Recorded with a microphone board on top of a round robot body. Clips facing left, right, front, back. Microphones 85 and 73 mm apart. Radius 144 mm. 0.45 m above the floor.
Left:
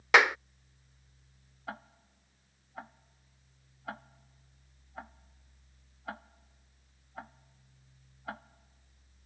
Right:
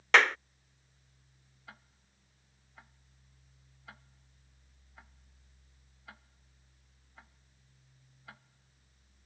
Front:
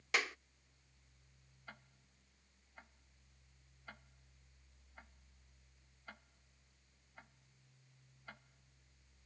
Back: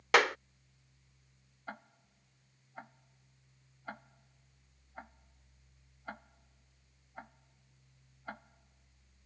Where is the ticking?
130° left.